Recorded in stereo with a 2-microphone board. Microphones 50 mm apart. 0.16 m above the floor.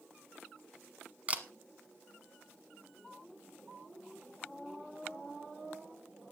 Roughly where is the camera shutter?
Right.